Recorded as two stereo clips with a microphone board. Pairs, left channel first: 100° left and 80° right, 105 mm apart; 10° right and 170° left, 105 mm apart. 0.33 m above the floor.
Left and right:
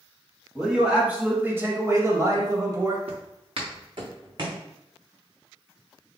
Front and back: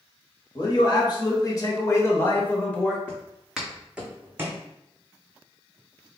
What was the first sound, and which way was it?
A man speaking, 5° left.